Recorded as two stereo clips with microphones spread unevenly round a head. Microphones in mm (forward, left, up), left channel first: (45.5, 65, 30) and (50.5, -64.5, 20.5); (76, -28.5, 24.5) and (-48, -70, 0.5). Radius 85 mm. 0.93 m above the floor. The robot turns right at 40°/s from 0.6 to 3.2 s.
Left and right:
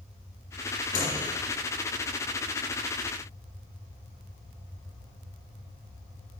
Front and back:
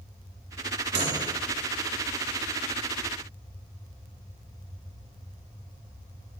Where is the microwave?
155° left, 3 m; by 1.3 s 170° left, 3 m.